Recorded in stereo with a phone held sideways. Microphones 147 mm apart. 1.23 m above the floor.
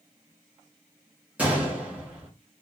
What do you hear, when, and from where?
1.4 s a gunshot: 10° right (ahead or behind), 1.3 m